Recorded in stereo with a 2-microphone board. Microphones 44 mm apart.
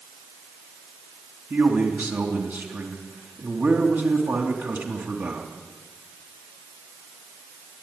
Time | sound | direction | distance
1.5 | a man speaking | 60° right (ahead or behind) | 3.5 m